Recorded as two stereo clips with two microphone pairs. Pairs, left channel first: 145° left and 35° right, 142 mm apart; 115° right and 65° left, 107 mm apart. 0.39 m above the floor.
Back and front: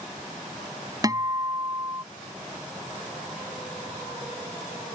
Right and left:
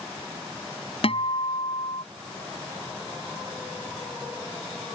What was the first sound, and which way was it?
A guitar, 95° right.